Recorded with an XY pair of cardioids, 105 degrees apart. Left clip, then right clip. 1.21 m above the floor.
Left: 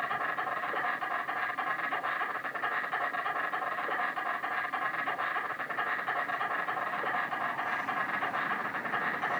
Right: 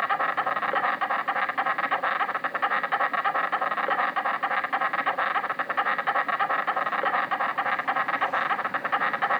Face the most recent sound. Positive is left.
turn(degrees=-65)